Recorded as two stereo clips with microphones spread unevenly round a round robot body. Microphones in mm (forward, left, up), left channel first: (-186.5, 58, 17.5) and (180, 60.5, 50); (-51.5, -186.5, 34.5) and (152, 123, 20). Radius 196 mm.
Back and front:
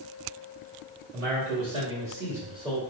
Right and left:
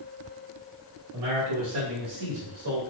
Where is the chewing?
I don't hear chewing.